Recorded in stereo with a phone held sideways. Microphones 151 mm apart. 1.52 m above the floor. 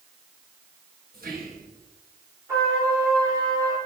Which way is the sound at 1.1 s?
75° right (ahead or behind).